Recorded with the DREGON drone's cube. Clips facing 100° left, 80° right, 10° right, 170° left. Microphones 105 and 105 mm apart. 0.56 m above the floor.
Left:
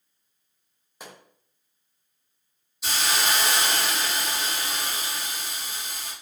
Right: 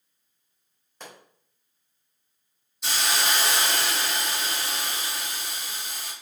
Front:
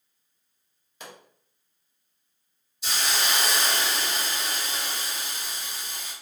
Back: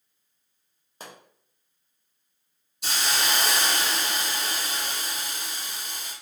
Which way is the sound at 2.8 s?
175° right.